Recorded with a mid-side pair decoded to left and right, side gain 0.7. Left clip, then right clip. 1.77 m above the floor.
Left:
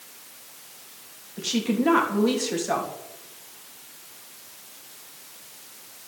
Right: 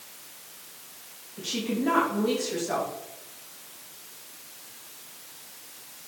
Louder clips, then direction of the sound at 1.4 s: Left 4 dB; 30° left.